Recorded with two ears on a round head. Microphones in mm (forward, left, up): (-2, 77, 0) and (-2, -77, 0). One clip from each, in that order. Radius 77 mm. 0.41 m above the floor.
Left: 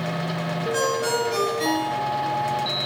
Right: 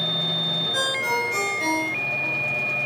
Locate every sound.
0.7 s a ringtone: 20° left (ahead or behind), 4.5 m